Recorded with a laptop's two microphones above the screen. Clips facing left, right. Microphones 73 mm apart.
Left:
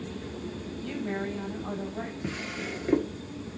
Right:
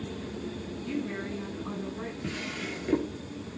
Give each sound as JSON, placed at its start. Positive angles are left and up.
{"t": 0.8, "sound": "a woman speaking", "side_deg": 55, "distance_m": 6.0}
{"t": 2.2, "sound": "a drawer", "side_deg": 10, "distance_m": 1.3}